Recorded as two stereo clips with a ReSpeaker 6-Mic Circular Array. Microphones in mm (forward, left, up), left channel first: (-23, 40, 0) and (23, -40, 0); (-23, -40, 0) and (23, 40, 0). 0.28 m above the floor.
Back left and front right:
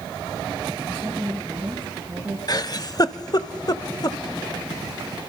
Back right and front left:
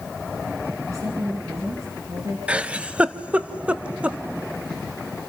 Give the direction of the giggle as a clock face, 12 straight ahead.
8 o'clock.